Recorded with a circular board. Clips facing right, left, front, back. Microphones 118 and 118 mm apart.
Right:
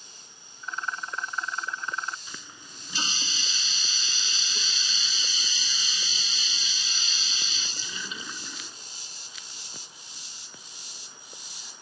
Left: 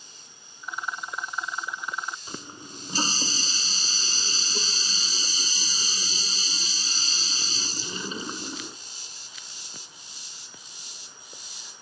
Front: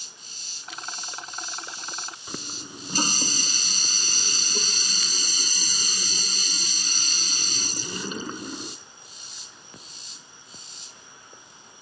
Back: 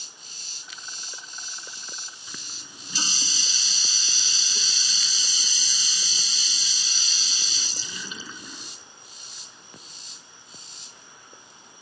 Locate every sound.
0.6 s a rattle: 10° left
2.3 s a running tap: 40° left